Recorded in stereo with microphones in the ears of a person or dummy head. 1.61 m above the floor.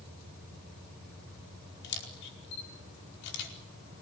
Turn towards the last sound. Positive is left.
turn(degrees=70)  # may be behind; listen again after turning